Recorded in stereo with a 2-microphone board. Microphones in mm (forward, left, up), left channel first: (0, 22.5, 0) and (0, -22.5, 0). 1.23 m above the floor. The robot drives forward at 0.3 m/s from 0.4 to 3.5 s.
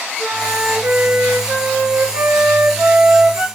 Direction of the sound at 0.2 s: 50° right (ahead or behind).